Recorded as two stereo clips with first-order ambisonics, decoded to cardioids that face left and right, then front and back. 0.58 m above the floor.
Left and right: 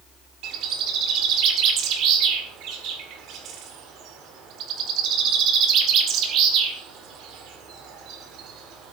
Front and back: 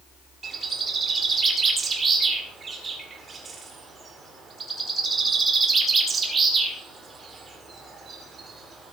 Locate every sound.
0.4 s a bird: 115° right, 1.9 m